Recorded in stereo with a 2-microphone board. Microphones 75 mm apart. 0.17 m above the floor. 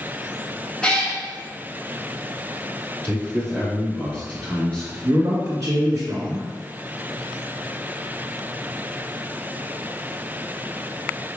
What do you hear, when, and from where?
0.8 s a cat meowing: 10° left (ahead or behind), 1.1 m
3.0 s a man speaking: 10° left (ahead or behind), 1.5 m
5.0 s a man speaking: 40° right (ahead or behind), 1.3 m